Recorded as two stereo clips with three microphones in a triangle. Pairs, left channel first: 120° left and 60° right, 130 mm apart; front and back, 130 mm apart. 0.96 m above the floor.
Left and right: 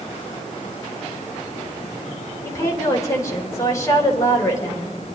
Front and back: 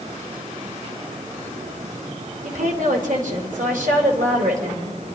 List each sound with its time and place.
2.4 s a woman speaking: 170° right, 3 m